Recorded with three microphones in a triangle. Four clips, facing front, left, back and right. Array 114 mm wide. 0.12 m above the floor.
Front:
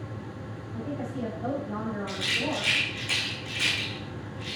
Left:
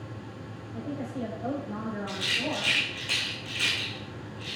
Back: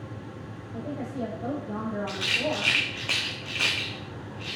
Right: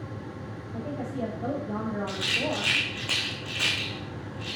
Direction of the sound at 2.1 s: 145° right.